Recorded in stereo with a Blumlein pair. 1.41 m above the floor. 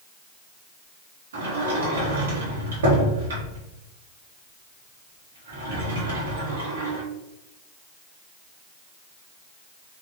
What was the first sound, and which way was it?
A sliding door, 65° right.